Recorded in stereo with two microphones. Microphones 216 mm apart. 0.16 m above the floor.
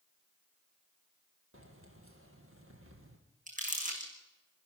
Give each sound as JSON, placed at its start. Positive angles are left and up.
{"t": 1.5, "sound": "keys jangling", "side_deg": -75, "distance_m": 3.0}
{"t": 3.5, "sound": "crumpling", "side_deg": -35, "distance_m": 4.5}